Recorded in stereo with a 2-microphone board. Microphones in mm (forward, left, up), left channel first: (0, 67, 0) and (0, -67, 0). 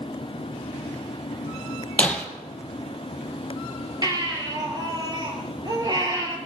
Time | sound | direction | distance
2.0 | breaking glass | 10° left (ahead or behind) | 1.9 m
4.0 | a baby crying | 35° right (ahead or behind) | 2.5 m